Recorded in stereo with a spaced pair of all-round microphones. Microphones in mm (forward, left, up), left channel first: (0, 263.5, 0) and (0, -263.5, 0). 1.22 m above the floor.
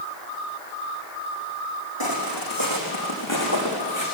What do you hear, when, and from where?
2.0 s footsteps: 45° left (ahead or behind), 4 m; by 4.1 s 35° left (ahead or behind), 6 m